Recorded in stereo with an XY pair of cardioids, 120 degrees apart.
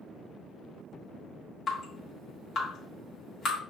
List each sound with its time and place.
1.7 s dripping: 50° left, 1.4 m